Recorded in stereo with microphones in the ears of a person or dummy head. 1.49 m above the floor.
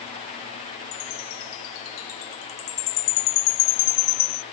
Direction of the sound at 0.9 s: 70° left (ahead or behind).